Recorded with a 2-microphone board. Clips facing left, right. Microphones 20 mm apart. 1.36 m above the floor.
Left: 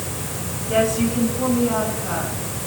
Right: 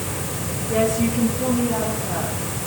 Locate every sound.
0.7 s a woman speaking: 85° left, 9.5 m; by 2.4 s 80° left, 8 m